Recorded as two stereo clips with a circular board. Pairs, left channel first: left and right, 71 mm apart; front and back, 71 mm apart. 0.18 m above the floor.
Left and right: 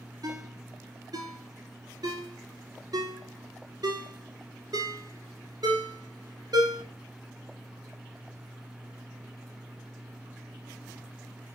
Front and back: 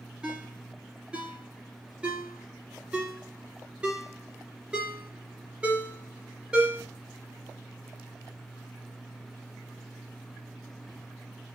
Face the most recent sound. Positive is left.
turn(degrees=-105)